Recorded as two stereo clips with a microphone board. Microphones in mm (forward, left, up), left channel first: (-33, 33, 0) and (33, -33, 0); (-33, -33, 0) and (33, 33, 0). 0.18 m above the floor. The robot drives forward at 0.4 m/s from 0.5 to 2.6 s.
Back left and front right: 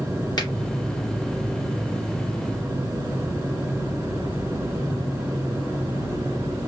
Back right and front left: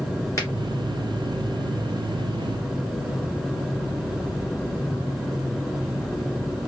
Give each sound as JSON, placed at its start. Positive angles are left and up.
{"t": 0.4, "sound": "a finger snap", "azimuth_deg": 170, "distance_m": 1.9}